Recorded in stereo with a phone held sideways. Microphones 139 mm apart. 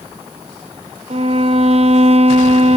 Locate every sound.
1.1 s a violin: 50° right (ahead or behind), 0.5 m